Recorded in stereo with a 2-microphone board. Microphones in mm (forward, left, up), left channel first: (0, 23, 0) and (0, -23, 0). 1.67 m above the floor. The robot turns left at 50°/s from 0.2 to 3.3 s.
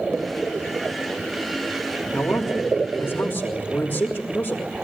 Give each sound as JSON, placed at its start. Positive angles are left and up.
{"t": 2.1, "sound": "a man speaking", "azimuth_deg": 120, "distance_m": 3.5}